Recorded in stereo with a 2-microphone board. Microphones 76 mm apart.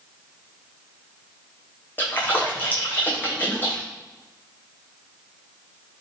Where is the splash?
25° left (ahead or behind), 1.2 m.